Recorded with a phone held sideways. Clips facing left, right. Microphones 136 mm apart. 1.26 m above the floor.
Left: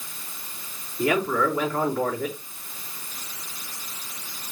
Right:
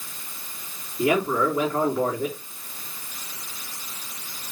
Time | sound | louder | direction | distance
1.0 | a man speaking | right 1 dB | 20° right (ahead or behind) | 4 m